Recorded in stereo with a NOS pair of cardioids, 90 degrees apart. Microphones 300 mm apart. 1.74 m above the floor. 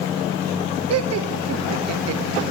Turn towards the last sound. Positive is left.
turn(degrees=-55)